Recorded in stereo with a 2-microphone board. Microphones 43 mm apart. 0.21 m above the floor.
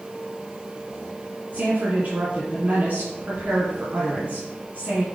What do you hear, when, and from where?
1.5 s a woman speaking: 45° right (ahead or behind), 2 m